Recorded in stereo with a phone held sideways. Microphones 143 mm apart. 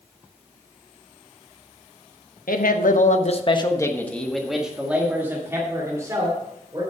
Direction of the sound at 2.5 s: 85° left.